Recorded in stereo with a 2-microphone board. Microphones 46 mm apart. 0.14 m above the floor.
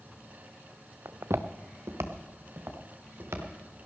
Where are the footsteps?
80° right, 0.6 m; by 3.5 s 70° right (ahead or behind), 3 m.